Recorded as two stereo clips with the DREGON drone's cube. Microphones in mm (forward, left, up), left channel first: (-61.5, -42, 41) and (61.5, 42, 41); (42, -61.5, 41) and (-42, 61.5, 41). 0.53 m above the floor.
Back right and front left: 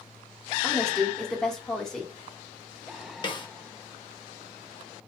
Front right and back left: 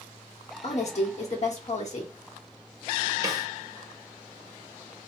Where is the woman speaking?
60° right, 1.3 m.